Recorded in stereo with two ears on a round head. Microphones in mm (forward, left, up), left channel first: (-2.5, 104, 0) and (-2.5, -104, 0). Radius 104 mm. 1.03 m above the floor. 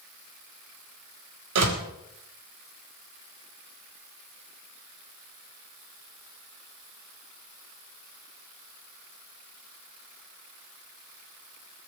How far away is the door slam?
About 3.5 m.